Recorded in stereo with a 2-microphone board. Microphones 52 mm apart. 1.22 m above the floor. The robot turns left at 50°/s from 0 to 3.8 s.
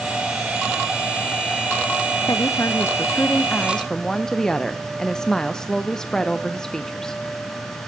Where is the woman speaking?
90° left, 0.5 m; by 7.2 s 10° left, 0.5 m.